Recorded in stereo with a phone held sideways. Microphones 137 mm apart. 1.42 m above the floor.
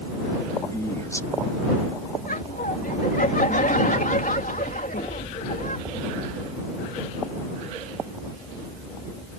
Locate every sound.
0.7 s a man speaking: 20° left (ahead or behind)
2.2 s laughter: 80° left